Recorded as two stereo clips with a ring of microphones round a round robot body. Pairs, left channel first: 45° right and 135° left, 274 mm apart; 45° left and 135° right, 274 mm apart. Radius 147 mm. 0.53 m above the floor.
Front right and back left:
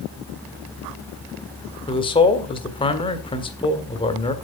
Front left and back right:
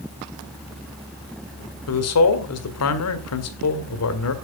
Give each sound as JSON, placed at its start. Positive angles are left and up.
{"t": 1.9, "sound": "a man speaking", "azimuth_deg": 25, "distance_m": 1.9}